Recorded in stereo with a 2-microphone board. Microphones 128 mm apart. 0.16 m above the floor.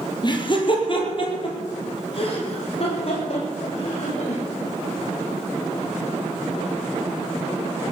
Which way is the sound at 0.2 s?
35° left (ahead or behind).